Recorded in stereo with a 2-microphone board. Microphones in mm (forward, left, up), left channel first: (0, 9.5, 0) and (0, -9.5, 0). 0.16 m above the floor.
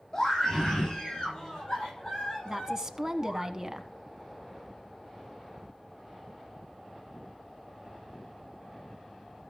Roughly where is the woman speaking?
Right.